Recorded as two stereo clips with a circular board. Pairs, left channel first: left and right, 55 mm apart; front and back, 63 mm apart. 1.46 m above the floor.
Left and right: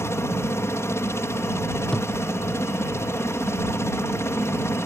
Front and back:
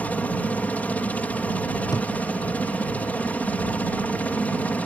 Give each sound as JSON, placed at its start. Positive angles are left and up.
{"t": 0.0, "sound": "a helicopter", "azimuth_deg": 60}
{"t": 1.9, "sound": "a thud", "azimuth_deg": 15}